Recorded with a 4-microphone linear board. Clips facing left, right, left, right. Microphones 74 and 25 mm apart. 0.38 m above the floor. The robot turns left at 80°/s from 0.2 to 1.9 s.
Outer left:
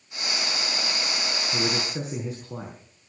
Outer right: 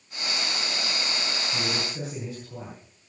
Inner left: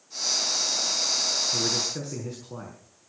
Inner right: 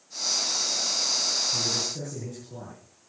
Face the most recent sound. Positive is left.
turn(degrees=100)